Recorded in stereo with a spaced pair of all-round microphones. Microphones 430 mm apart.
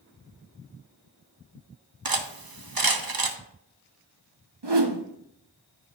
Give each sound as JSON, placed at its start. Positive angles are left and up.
{"t": 2.0, "sound": "cutlery clinking", "side_deg": -55, "distance_m": 0.7}
{"t": 4.6, "sound": "a whoosh", "side_deg": -65, "distance_m": 0.8}